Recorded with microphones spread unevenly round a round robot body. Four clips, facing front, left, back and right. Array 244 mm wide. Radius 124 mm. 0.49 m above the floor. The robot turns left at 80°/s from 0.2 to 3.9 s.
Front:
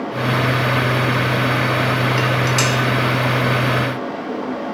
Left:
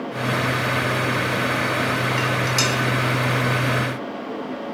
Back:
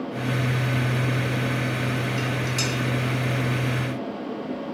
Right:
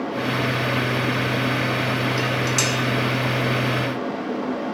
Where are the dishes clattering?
25° left, 1.0 m; by 2.7 s 20° right, 1.0 m.